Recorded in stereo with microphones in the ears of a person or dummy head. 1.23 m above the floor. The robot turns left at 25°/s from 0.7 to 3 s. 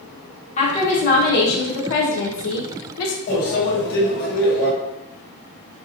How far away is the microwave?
About 1.7 m.